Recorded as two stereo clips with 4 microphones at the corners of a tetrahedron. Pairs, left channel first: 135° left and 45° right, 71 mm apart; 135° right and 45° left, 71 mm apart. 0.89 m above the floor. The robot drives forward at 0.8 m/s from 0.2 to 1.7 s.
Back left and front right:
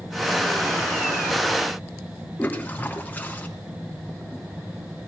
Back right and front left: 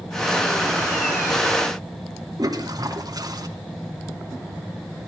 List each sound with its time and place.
2.4 s a toilet flushing: 70° left, 2.5 m